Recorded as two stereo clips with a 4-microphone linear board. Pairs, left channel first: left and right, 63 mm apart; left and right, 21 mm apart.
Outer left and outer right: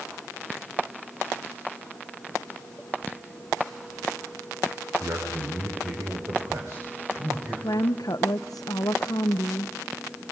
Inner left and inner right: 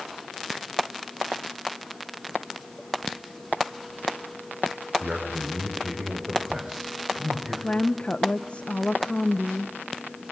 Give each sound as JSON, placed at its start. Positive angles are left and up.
{"t": 5.0, "sound": "a man speaking", "side_deg": -55, "distance_m": 5.0}
{"t": 7.6, "sound": "a woman speaking", "side_deg": 75, "distance_m": 0.7}